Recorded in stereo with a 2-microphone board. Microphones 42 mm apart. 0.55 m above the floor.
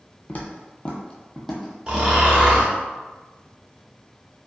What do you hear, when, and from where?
0.3 s footsteps: 40° left (ahead or behind), 0.7 m; by 2.7 s 10° right (ahead or behind), 1.3 m
1.9 s snoring: 20° right (ahead or behind), 0.9 m